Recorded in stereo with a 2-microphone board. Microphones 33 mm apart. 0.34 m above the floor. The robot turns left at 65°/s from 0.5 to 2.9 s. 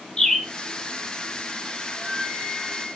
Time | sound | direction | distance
0.2 | a bird | 15° left (ahead or behind) | 5 m
1.9 | a flute | 155° right | 4 m